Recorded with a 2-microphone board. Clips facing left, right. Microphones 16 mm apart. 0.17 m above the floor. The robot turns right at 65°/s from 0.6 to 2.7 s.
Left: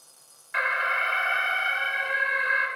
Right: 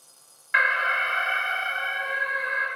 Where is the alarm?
60° right, 1.3 m; by 2.7 s 75° left, 1.3 m.